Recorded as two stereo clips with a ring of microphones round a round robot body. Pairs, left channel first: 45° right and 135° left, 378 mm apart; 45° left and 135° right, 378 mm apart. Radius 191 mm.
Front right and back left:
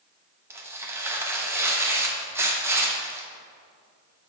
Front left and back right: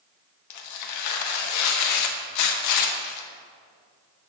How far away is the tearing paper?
About 0.7 m.